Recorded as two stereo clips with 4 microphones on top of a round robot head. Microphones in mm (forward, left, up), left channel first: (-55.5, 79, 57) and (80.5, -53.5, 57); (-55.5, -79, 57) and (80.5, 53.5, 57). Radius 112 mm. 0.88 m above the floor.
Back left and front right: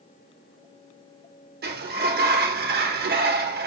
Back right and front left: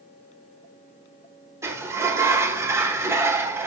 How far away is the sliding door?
About 1.2 m.